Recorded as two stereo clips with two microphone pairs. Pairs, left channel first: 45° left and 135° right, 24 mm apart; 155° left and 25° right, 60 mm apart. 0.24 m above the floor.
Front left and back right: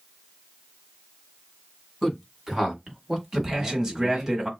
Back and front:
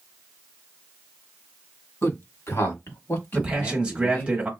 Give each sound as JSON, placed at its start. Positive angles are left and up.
{"t": 2.0, "sound": "a man speaking", "azimuth_deg": 150, "distance_m": 1.9}
{"t": 3.3, "sound": "a man speaking", "azimuth_deg": -75, "distance_m": 1.1}